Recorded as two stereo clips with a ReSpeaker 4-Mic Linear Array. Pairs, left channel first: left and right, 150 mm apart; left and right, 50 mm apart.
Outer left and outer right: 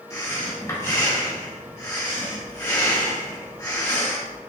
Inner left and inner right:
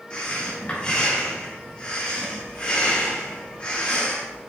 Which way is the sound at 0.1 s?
25° left (ahead or behind).